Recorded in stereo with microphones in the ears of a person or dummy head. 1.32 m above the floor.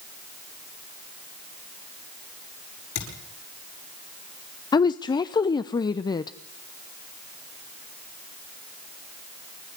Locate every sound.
3.0 s a thud: 75° left (ahead or behind), 9 m
4.7 s a woman speaking: 20° left (ahead or behind), 0.6 m